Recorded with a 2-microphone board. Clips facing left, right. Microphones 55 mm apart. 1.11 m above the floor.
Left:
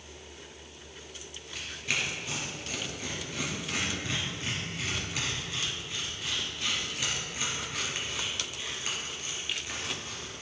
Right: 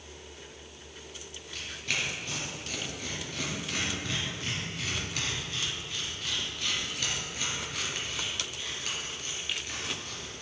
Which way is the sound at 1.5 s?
10° left (ahead or behind).